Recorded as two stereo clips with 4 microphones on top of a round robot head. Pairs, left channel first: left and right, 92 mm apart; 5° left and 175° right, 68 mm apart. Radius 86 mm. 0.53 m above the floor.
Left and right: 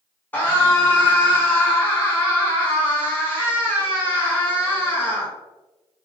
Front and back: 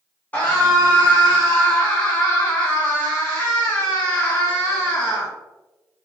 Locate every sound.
0.3 s a scream: 45° left, 1.2 m